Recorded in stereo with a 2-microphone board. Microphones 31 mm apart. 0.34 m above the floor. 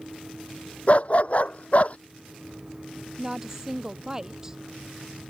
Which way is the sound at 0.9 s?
45° left (ahead or behind).